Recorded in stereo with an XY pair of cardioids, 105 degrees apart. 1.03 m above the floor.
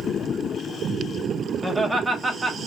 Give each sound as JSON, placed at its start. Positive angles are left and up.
{"t": 1.6, "sound": "laughter", "azimuth_deg": -10, "distance_m": 1.0}